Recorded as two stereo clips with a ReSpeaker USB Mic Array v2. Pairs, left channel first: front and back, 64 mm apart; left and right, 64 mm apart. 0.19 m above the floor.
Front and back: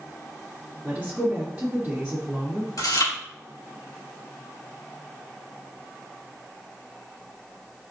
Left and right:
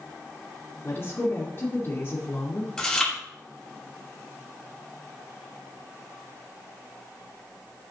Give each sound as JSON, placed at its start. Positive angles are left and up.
{"t": 0.8, "sound": "a woman speaking", "azimuth_deg": 110, "distance_m": 2.0}
{"t": 2.8, "sound": "chewing", "azimuth_deg": 10, "distance_m": 2.5}